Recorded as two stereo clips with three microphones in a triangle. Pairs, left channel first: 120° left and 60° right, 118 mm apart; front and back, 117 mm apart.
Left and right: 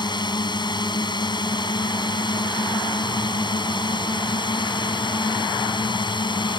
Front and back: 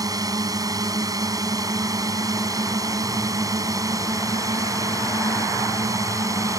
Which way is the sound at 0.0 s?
140° left.